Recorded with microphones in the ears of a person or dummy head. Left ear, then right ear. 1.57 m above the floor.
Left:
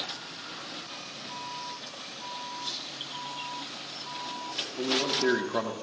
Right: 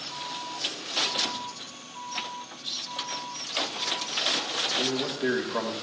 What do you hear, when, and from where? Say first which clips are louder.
2.6 s a rattle: right 7 dB; 45° left (ahead or behind), 4 m
4.8 s a man speaking: left 1 dB; 50° left (ahead or behind), 2.0 m